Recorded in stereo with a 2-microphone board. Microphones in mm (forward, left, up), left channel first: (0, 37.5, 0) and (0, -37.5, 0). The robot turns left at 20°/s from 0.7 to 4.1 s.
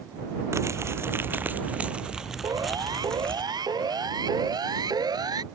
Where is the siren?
65° right (ahead or behind).